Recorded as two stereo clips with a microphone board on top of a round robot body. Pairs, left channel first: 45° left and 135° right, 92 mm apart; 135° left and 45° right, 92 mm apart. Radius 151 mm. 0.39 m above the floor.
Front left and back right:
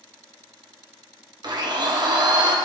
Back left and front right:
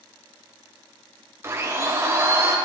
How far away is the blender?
About 2.5 m.